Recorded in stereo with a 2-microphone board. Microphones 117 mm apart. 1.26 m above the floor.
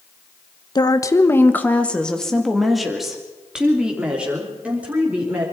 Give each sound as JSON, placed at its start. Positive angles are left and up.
{"t": 0.8, "sound": "a woman speaking", "side_deg": 35, "distance_m": 1.1}